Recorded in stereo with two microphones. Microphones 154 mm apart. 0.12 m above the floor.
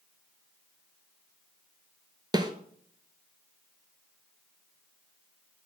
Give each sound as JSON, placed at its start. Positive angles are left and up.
{"t": 2.3, "sound": "a snare drum", "side_deg": -30, "distance_m": 0.6}